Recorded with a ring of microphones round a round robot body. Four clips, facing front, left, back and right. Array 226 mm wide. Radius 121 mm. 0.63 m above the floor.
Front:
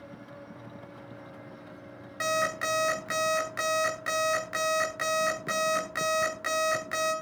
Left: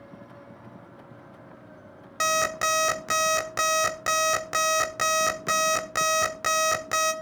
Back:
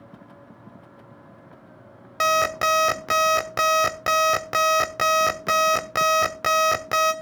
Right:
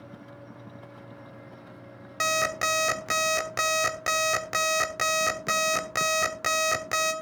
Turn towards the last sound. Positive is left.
turn(degrees=-170)